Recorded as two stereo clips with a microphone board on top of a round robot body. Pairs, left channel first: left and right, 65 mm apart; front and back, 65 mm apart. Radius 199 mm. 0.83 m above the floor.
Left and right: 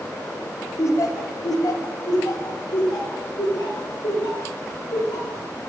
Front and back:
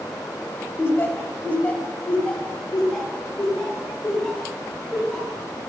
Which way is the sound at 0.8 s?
50° left.